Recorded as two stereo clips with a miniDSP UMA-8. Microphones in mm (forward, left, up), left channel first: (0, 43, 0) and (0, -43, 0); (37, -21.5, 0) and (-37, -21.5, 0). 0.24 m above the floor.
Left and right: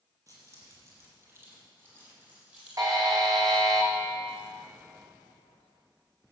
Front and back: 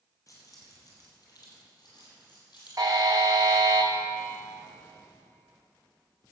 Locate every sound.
0.3 s keys jangling: 45° right, 4.5 m; by 3.6 s 10° right, 6.5 m
2.8 s a buzzer: 135° right, 2 m